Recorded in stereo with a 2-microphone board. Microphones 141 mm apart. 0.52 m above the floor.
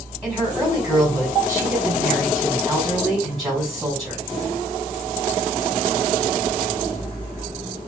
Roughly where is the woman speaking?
Centre.